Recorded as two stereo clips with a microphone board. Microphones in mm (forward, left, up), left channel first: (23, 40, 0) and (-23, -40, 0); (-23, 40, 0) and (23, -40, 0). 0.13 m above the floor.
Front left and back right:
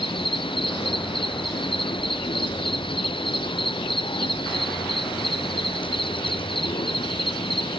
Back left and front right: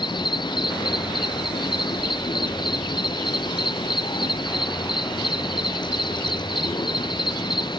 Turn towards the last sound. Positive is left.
turn(degrees=85)